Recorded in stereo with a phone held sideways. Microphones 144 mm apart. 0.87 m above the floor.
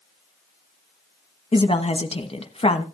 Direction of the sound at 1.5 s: 40° left (ahead or behind).